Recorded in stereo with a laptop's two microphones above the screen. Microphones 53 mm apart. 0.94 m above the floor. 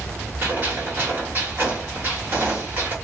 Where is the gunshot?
35° right (ahead or behind), 1.3 m.